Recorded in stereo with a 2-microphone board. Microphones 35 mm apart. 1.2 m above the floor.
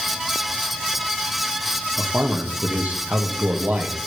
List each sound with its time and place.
2.0 s a man speaking: 70° right (ahead or behind), 1.8 m